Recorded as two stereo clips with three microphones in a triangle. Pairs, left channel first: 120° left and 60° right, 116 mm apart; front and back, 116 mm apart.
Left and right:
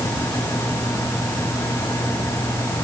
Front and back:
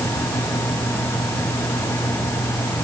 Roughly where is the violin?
I don't hear a violin.